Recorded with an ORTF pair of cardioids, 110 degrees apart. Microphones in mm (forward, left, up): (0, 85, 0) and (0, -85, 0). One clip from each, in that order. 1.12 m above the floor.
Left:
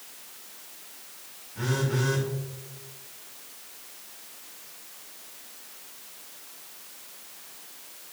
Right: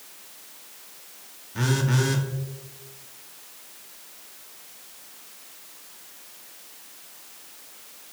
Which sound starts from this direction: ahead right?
A phone buzzing, at 1.6 s.